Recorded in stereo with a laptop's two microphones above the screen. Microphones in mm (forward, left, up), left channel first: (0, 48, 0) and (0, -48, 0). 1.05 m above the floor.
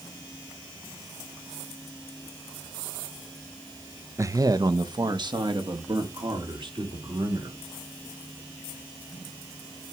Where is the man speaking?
30° right (ahead or behind), 0.6 m; by 7.6 s 55° right (ahead or behind), 3.5 m.